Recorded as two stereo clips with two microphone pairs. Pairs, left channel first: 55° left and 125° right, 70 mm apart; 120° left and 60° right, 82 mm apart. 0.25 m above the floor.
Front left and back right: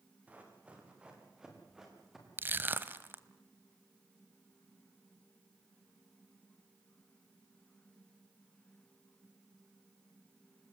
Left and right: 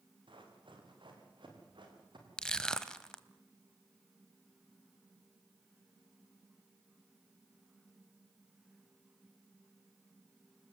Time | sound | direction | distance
0.3 | running footsteps | 55° right | 6.5 m
2.4 | crushing | 165° right | 1.2 m